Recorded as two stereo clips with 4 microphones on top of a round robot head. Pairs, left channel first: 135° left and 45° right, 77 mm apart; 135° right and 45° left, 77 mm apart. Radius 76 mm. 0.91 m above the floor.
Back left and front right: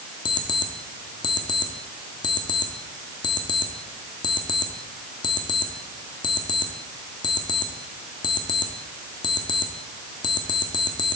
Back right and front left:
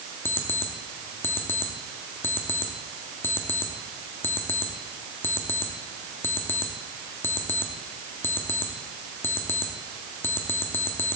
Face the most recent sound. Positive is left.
turn(degrees=165)